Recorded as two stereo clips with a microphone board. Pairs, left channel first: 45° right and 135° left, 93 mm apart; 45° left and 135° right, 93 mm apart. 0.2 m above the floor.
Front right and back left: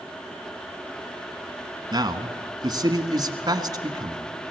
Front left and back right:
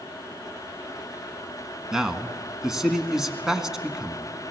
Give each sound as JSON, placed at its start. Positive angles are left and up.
{"t": 1.9, "sound": "a man speaking", "azimuth_deg": 145, "distance_m": 1.5}